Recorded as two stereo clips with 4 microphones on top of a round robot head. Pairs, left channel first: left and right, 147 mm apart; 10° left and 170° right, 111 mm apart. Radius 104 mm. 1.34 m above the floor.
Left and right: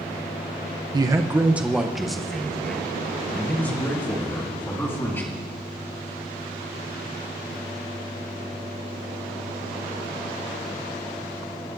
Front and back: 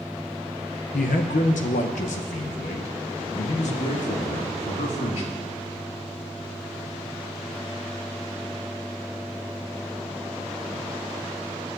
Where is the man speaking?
30° right, 0.5 m; by 5.4 s 15° left, 2.5 m.